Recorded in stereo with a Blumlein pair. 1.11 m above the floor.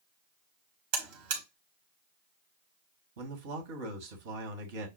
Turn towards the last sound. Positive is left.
turn(degrees=-50)